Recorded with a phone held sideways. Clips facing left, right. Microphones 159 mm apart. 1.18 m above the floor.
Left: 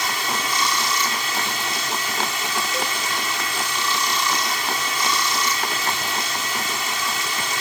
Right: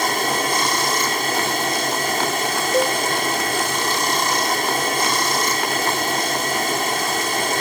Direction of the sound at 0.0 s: 50° right (ahead or behind).